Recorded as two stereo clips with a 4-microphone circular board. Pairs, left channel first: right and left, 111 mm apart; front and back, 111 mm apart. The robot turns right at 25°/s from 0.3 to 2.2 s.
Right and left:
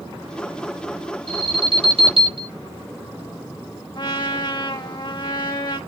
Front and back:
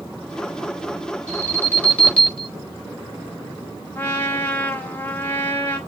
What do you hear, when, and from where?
1.3 s an alarm: 55° left, 4 m; by 2.5 s 80° left, 4 m
4.0 s a trumpet: 65° right, 1.7 m